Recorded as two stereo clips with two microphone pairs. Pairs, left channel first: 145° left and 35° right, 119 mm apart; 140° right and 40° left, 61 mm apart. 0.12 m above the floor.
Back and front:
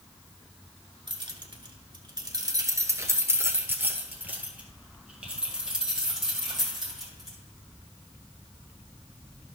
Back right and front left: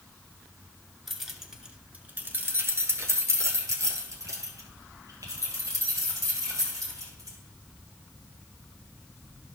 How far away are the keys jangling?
About 1.1 m.